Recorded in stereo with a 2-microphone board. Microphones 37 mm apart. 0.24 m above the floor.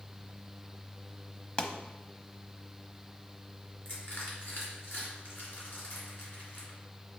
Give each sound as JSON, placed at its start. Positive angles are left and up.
{"t": 1.6, "sound": "a pop", "side_deg": 30, "distance_m": 0.7}
{"t": 3.9, "sound": "crushing", "side_deg": 65, "distance_m": 3.0}